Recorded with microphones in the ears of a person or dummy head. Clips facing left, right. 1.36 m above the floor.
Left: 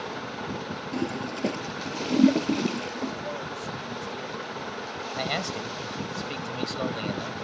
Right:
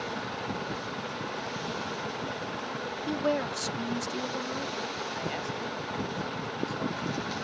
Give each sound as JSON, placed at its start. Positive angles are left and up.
{"t": 0.9, "sound": "a toilet flushing", "side_deg": 85}
{"t": 3.1, "sound": "a woman speaking", "side_deg": -80}
{"t": 5.1, "sound": "a man speaking", "side_deg": 80}